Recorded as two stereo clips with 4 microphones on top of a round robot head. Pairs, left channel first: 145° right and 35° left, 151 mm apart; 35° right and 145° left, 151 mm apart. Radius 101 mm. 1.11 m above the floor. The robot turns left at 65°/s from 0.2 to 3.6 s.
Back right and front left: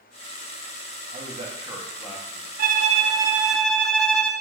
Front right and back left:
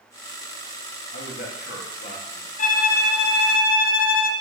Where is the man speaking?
10° right, 1.5 m; by 2.5 s 100° right, 1.5 m.